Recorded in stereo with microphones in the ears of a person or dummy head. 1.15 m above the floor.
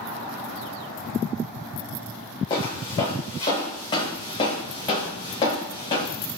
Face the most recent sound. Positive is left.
turn(degrees=25)  # may be behind; listen again after turning